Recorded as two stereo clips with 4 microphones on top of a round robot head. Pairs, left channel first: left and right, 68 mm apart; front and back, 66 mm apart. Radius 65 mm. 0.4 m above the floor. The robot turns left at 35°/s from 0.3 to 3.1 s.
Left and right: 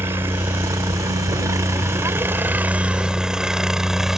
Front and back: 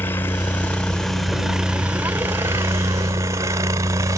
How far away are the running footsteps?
I don't hear running footsteps.